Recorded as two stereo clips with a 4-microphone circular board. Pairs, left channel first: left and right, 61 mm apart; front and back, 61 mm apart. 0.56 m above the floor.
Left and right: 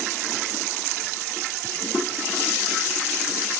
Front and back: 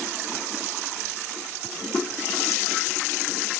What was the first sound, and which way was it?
Only background noise.